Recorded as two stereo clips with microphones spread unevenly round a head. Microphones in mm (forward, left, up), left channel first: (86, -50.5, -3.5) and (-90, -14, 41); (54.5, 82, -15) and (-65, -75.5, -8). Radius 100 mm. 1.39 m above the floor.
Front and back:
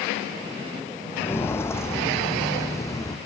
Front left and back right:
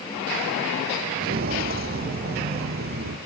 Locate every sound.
1.1 s footsteps: 95° right, 2.5 m; by 3.2 s 90° right, 3.5 m